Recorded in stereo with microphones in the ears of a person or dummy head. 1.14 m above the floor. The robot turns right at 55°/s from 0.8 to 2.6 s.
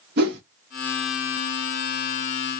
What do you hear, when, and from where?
0.2 s a whoosh: 60° right (ahead or behind), 1.0 m